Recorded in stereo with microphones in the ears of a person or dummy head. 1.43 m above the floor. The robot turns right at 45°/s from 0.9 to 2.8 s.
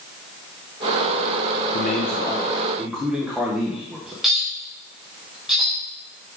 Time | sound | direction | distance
1.7 | a man speaking | 140° left | 0.7 m
4.2 | a clink | 5° right (ahead or behind) | 3 m